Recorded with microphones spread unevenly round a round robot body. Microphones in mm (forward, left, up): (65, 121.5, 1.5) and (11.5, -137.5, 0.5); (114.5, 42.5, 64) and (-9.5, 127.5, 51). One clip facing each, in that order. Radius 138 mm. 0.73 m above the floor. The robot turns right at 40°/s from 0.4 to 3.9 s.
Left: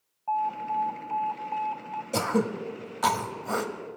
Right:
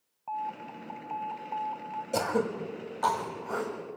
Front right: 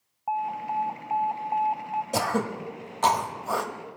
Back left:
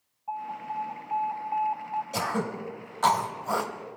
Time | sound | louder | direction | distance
0.3 | an alarm | left 7 dB, front right 6 dB | 20° right | 0.7 m
2.1 | throat clearing | left 2 dB, front right 5 dB | 5° right | 1.2 m